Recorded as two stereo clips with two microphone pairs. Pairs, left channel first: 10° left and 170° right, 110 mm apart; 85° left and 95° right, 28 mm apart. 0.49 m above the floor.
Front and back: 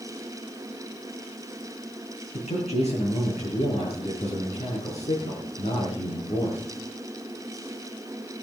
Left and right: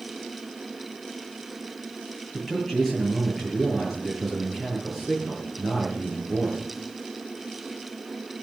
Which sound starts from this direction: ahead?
A man speaking, at 2.3 s.